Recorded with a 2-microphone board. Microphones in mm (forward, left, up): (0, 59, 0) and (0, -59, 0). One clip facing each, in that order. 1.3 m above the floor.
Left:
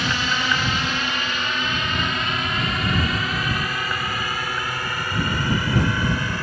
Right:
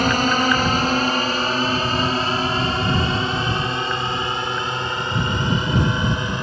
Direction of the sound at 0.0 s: 45° right (ahead or behind).